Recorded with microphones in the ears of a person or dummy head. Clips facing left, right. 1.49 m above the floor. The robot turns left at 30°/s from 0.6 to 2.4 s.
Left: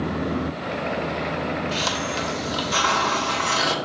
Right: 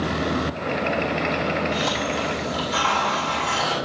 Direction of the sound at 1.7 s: 75° left (ahead or behind).